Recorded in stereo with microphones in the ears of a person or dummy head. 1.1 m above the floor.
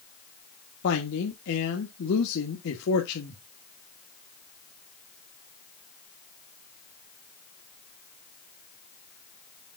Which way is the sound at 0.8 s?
65° left (ahead or behind).